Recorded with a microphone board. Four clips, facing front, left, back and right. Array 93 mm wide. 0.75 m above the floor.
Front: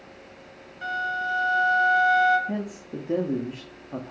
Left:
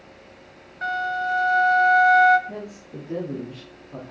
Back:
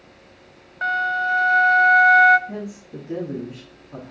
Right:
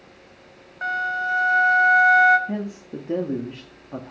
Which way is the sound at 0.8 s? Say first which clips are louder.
Even, back 6 dB; 160° right.